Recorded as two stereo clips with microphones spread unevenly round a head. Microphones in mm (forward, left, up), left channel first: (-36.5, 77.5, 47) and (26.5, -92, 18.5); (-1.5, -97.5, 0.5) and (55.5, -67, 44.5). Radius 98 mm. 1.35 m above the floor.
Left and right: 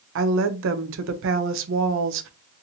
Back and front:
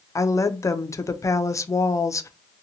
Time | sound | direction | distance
0.1 | a woman speaking | 90° right | 0.5 m